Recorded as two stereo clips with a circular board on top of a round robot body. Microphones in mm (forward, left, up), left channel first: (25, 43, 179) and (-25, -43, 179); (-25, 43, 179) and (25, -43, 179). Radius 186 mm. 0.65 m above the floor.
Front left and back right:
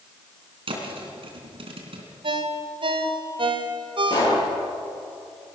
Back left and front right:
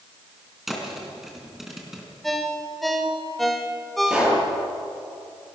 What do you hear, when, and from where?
0.7 s a thud: 145° right, 3.5 m
2.2 s a ringtone: 150° right, 1.9 m
4.1 s a pop: 20° left, 10 m